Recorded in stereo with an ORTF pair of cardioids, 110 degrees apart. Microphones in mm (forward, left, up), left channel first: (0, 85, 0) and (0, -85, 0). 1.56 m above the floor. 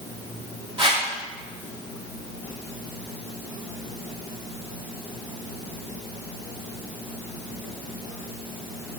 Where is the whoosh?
30° right, 3.5 m.